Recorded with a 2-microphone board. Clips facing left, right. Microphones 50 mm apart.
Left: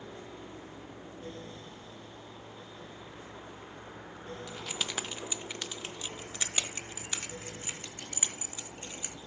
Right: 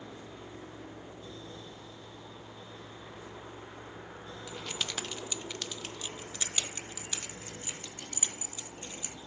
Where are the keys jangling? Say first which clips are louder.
Right 1 dB; centre (ahead or behind), 0.5 m; by 9.1 s 20° left (ahead or behind), 3 m.